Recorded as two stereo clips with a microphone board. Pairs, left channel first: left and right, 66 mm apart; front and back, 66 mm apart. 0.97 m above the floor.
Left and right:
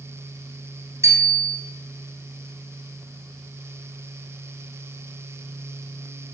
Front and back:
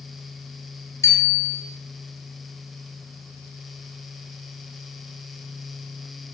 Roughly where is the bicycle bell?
Ahead right.